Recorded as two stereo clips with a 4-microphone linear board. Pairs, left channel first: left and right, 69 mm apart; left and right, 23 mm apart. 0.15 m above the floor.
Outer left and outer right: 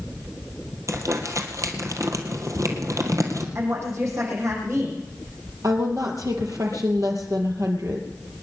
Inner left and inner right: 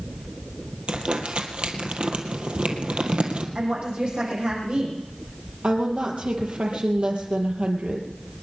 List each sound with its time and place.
0.9 s crumpling: 60° right (ahead or behind), 1.9 m
3.5 s a woman speaking: 50° right (ahead or behind), 7 m
5.6 s a woman speaking: 65° right (ahead or behind), 3.5 m